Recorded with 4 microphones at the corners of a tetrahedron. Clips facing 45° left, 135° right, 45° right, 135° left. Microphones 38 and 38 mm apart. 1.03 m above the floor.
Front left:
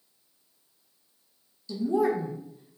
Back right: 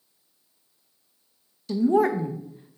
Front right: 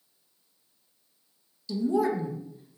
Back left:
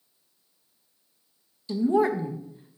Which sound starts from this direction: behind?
A woman speaking, at 1.7 s.